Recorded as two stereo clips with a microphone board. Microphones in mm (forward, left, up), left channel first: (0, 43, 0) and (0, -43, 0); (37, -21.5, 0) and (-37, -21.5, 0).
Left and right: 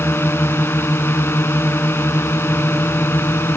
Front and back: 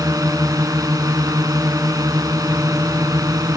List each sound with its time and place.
0.0 s a drone: 150° left